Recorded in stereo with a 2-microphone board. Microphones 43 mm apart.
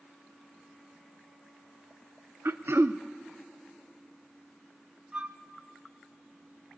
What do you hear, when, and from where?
2.5 s throat clearing: 65° right (ahead or behind), 0.5 m
5.1 s a flute: 25° right (ahead or behind), 1.0 m